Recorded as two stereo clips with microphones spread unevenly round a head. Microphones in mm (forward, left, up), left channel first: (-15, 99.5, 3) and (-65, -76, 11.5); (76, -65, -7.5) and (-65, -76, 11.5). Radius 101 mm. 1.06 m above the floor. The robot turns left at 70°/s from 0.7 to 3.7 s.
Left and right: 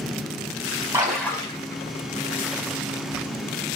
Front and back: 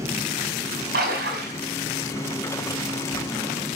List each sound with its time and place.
0.9 s a splash: straight behind, 5 m; by 1.6 s 135° left, 5 m